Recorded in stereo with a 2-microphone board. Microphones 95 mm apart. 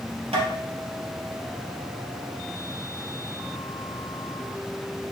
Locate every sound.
0.3 s tapping: 80° right, 3.5 m